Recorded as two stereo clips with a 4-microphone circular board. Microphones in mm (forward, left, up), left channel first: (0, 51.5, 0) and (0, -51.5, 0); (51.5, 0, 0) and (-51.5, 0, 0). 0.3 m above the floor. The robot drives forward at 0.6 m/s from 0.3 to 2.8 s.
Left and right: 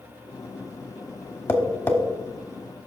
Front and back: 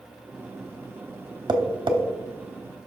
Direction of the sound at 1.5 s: 150° left.